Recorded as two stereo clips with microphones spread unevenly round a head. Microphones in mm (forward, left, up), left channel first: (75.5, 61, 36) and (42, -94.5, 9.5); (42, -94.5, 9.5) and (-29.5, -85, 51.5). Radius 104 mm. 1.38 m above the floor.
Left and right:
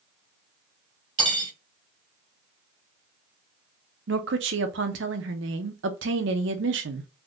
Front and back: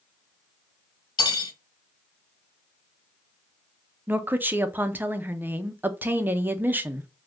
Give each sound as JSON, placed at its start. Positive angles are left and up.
{"t": 1.2, "sound": "cutlery clinking", "azimuth_deg": -40, "distance_m": 1.8}
{"t": 4.1, "sound": "a woman speaking", "azimuth_deg": -130, "distance_m": 0.6}